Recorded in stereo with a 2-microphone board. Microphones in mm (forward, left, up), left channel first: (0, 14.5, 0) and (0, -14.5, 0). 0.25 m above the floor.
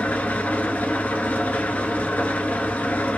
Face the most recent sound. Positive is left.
turn(degrees=80)